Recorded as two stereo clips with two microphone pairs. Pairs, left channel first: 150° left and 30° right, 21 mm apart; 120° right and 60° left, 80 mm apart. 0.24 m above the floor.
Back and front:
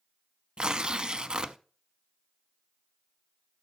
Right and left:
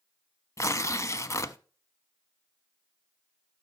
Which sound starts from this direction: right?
Tearing paper, at 0.6 s.